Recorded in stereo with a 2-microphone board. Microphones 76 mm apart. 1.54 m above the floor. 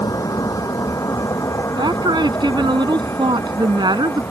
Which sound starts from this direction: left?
A vehicle, at 0.0 s.